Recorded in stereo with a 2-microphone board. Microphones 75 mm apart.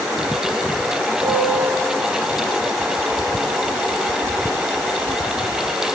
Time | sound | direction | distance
1.2 | a piano | 5° left (ahead or behind) | 6.5 m